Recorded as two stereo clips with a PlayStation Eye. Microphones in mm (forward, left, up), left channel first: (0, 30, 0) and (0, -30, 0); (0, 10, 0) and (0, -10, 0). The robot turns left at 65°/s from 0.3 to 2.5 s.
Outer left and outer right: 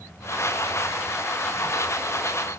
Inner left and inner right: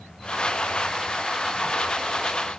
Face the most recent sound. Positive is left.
No sound to turn to.